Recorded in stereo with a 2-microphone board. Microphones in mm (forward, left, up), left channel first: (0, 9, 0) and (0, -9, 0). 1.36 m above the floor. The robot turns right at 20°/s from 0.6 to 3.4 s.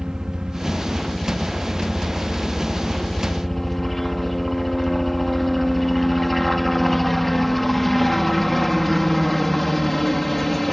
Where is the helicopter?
45° right; by 10.7 s 10° left.